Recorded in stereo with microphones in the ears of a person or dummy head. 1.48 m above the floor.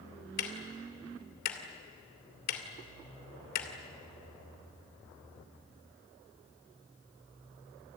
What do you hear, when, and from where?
0.4 s ticking: 55° left (ahead or behind), 2.5 m